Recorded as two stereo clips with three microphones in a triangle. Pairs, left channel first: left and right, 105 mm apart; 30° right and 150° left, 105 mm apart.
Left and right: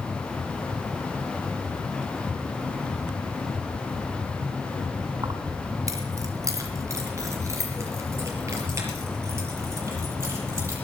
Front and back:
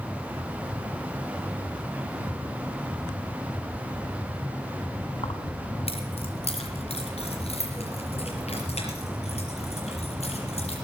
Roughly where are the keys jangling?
Ahead right.